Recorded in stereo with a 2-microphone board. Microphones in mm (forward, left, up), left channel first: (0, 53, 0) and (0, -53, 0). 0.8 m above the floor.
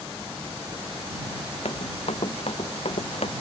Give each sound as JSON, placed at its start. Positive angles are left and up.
{"t": 1.6, "sound": "running footsteps", "side_deg": 65}